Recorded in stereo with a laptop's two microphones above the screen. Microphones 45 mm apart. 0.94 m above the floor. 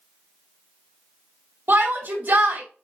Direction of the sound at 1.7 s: 55° right (ahead or behind).